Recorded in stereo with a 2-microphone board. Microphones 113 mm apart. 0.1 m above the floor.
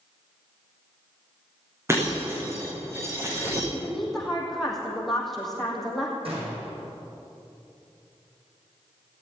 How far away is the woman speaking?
About 3.5 m.